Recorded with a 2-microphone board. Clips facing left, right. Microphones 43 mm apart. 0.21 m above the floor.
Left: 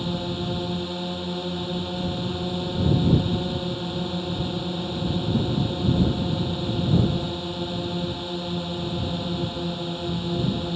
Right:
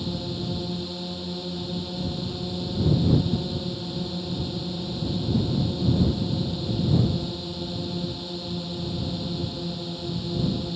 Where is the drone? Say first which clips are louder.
Left 3 dB; 40° left (ahead or behind).